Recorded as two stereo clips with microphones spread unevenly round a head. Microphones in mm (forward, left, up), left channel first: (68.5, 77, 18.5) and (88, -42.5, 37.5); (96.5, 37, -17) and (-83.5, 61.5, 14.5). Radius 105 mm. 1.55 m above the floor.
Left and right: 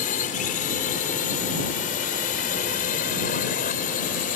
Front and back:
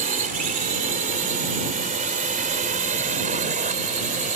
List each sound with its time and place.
0.0 s a drone: 130° left